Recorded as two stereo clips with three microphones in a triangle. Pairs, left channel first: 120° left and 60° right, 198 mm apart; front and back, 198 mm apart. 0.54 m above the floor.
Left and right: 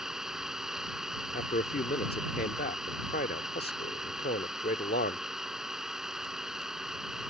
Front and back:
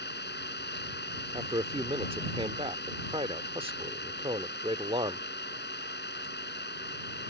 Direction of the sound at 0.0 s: 25° left.